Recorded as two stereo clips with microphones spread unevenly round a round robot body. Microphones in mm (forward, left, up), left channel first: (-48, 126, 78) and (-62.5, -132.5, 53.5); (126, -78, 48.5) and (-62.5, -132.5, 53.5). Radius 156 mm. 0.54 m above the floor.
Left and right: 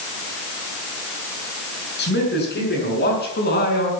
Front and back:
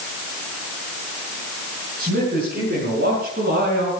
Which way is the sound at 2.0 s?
135° left.